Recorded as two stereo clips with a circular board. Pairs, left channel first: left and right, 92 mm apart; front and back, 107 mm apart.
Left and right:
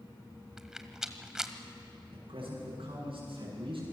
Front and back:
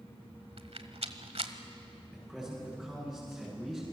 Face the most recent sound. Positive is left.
turn(degrees=-85)